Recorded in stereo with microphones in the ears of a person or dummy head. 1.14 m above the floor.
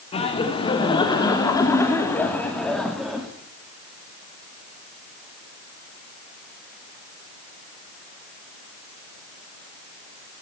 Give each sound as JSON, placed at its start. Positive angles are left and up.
{"t": 0.1, "sound": "laughter", "side_deg": 30, "distance_m": 3.0}